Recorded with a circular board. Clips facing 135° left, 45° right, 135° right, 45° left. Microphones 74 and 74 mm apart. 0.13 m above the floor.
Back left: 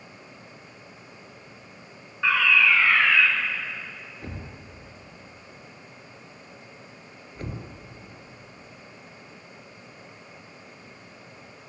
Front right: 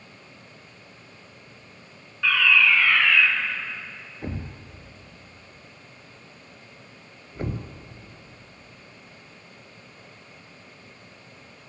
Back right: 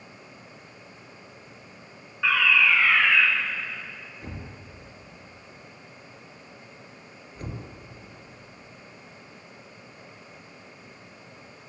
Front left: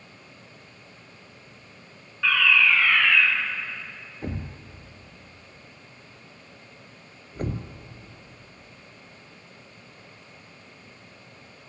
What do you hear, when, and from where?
2.2 s a fire alarm: 165° left, 2 m
4.2 s a thud: 15° left, 1.0 m